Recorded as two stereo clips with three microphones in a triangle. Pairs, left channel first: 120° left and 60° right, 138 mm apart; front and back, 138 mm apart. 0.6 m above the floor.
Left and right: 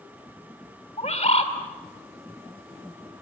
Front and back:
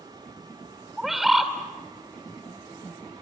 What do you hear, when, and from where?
1.0 s a bird: 95° left, 2.0 m